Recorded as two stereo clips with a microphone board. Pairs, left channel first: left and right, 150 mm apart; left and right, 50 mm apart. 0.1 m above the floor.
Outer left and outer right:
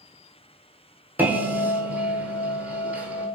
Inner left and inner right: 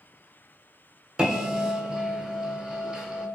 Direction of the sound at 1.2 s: 10° right (ahead or behind).